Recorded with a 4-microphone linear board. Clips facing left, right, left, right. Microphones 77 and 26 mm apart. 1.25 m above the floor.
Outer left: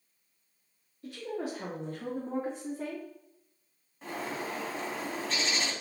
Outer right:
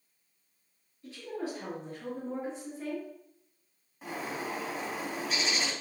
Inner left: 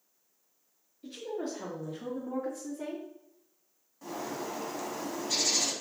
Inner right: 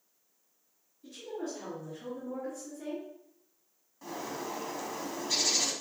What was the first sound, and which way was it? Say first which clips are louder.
A woman speaking: outer left 1 dB, inner left 3 dB; 65° left (ahead or behind).